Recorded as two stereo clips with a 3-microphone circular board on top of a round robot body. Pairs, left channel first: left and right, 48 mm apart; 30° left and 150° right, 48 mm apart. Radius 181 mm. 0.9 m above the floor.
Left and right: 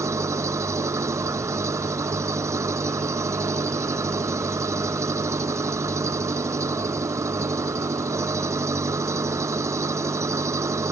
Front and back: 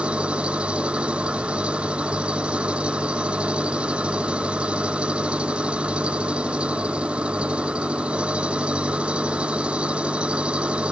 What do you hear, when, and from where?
0.0 s an engine running: 85° right